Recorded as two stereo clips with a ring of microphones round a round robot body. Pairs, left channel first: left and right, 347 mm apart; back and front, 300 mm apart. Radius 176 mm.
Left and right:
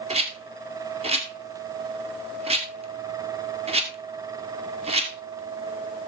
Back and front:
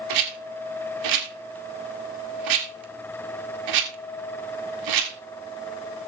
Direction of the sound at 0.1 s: 15° right.